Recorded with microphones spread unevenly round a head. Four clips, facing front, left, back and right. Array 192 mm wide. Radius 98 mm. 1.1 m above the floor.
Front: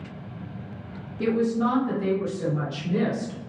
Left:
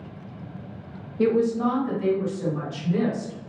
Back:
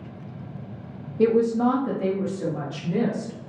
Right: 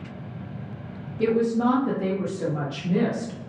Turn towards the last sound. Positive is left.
turn(degrees=-90)